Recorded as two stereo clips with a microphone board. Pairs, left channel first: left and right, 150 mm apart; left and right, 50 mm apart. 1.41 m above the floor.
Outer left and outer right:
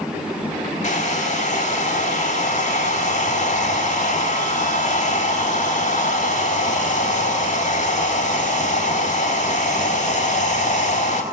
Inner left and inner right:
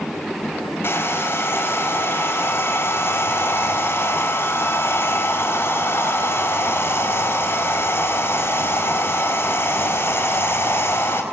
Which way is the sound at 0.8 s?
50° left (ahead or behind).